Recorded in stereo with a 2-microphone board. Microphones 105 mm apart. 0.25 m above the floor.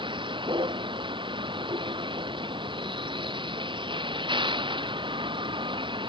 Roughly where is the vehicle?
Right.